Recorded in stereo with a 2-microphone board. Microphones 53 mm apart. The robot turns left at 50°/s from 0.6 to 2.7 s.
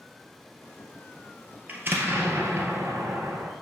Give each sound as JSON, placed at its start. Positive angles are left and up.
{"t": 1.7, "sound": "an explosion", "azimuth_deg": -35, "distance_m": 1.6}